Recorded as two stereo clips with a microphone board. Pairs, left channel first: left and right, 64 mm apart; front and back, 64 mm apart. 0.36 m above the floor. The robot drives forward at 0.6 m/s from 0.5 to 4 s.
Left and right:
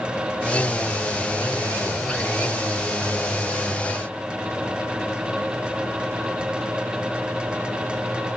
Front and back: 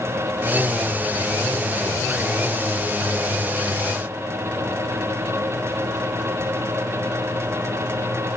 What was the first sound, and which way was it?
Only background noise.